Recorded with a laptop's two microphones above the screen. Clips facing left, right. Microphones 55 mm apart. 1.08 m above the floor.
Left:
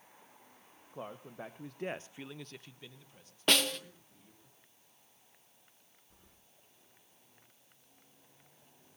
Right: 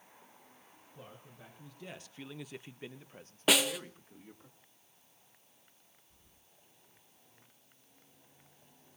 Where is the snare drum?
5° right (ahead or behind), 1.0 m.